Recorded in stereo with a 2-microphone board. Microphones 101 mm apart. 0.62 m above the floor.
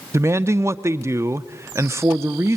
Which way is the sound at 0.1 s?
25° right (ahead or behind).